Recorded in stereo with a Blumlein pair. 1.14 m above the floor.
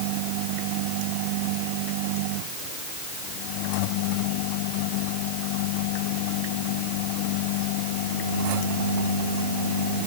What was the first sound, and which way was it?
Only background noise.